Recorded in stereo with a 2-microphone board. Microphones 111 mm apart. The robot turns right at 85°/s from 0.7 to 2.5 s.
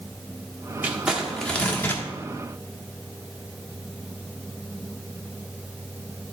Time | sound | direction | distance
0.8 | crumpling | 20° right (ahead or behind) | 1.2 m